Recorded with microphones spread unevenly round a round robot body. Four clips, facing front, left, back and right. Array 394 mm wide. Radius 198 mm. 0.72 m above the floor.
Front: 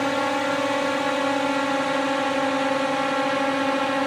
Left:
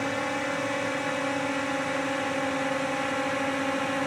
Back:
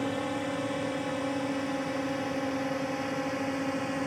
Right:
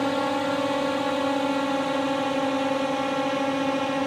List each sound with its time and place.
0.0 s a drone: 45° right; by 4.1 s 30° right